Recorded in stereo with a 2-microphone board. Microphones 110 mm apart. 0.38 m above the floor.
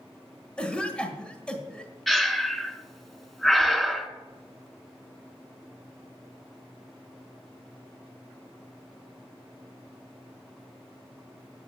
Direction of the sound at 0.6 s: 10° left (ahead or behind).